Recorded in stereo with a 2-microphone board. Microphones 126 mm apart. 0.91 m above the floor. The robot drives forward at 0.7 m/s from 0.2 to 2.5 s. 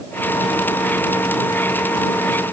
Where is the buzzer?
I don't hear a buzzer.